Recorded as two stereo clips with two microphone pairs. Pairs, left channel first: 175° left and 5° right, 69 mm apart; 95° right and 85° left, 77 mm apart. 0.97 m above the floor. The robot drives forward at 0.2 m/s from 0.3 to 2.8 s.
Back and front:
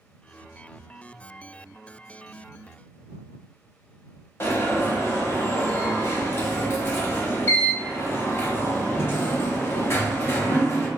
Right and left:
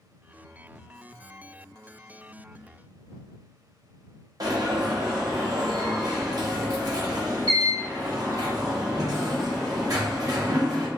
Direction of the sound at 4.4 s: 115° left.